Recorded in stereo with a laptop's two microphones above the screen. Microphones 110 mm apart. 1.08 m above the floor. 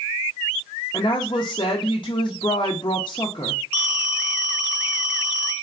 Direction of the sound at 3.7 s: 15° right (ahead or behind).